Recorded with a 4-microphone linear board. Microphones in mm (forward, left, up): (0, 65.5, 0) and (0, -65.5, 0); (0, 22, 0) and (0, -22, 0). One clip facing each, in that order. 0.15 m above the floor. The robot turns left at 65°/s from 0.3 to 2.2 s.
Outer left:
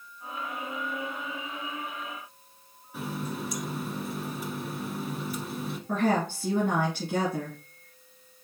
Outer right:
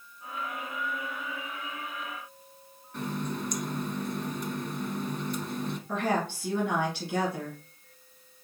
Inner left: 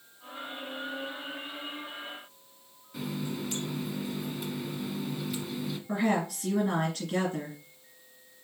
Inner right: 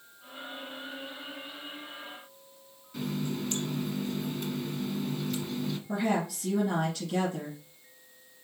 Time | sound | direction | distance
2.9 | a running tap | 5° left (ahead or behind) | 0.8 m
5.9 | a woman speaking | 45° left (ahead or behind) | 2 m